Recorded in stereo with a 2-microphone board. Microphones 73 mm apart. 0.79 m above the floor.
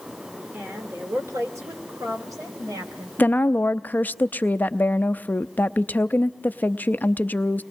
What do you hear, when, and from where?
0.5 s a woman speaking: 30° right (ahead or behind), 3 m; by 3.1 s 60° right (ahead or behind), 5 m
3.2 s a woman speaking: 25° left (ahead or behind), 0.6 m